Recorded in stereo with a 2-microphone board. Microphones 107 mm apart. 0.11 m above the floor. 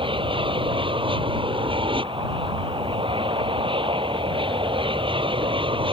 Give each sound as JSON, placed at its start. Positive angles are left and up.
{"t": 0.0, "sound": "an aircraft", "side_deg": -55}